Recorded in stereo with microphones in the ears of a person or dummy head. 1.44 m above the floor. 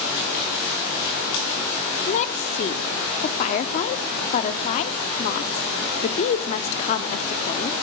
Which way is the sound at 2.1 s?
40° left (ahead or behind).